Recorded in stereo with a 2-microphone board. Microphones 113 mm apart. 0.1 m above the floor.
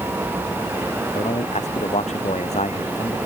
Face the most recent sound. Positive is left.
turn(degrees=80)